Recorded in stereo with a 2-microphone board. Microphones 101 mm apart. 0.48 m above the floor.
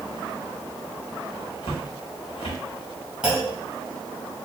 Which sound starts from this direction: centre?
A clunk, at 3.2 s.